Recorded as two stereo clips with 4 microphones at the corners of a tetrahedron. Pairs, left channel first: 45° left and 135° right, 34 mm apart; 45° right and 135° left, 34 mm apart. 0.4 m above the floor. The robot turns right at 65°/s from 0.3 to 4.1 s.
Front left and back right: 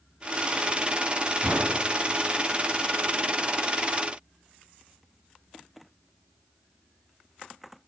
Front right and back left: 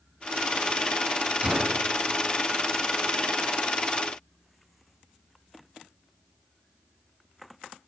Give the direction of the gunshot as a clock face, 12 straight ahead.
6 o'clock.